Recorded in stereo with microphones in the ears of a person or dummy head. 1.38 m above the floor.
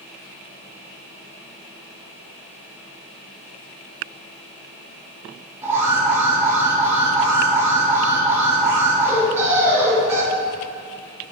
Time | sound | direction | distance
5.6 | an alarm | 15° right (ahead or behind) | 2.5 m